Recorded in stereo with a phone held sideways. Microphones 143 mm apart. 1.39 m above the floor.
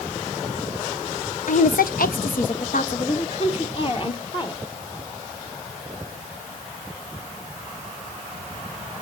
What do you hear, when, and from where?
1.5 s a woman speaking: 65° left (ahead or behind), 1.0 m; by 4.6 s 30° left (ahead or behind), 1.9 m